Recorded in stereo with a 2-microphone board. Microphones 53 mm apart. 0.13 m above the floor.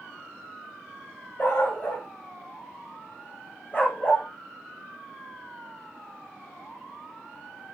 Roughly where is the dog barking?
Left.